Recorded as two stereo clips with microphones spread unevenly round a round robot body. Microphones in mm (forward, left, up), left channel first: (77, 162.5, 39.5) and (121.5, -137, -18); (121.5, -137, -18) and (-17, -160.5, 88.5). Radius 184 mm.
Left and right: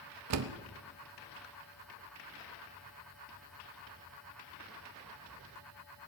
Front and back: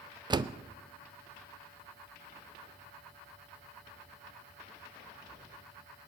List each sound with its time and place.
0.3 s a door slam: 80° right, 0.6 m